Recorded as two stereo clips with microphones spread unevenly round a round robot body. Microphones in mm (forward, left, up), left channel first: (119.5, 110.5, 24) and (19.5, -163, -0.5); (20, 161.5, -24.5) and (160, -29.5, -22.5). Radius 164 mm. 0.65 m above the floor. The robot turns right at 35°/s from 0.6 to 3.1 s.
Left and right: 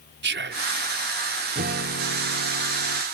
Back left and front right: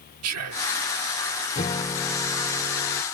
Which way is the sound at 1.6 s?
170° right.